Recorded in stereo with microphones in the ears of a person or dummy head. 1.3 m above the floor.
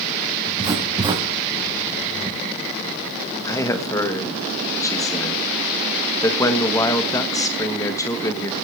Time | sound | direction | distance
0.5 | writing | 25° right (ahead or behind) | 4 m
3.5 | a man speaking | 15° left (ahead or behind) | 1.2 m